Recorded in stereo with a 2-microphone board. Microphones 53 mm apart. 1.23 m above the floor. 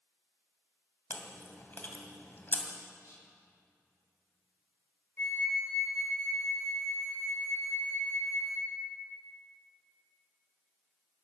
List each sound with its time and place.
1.1 s chewing: 40° left (ahead or behind), 1.9 m
3.0 s whispering: 75° left (ahead or behind), 5 m
5.2 s a flute: 40° left (ahead or behind), 3 m